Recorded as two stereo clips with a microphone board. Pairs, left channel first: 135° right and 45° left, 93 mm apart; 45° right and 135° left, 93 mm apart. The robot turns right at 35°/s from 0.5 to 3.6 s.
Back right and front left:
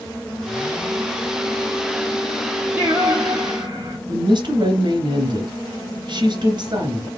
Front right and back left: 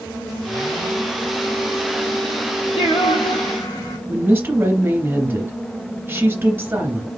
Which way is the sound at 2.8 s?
25° right.